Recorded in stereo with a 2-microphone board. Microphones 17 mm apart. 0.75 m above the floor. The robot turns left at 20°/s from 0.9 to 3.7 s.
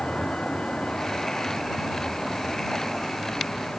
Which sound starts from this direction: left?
A vehicle, at 0.0 s.